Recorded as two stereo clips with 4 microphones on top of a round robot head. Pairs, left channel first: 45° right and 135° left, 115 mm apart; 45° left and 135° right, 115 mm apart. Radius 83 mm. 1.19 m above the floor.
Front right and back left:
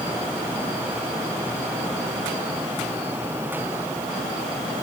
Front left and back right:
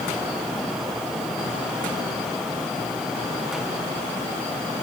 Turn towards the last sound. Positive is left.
No sound to turn to.